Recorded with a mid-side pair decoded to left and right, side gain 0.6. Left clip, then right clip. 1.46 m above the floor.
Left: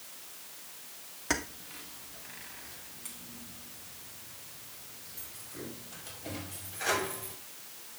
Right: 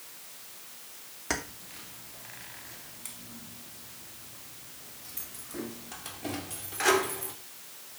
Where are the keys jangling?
Straight ahead, 2.5 m; by 7.3 s 70° right, 3 m.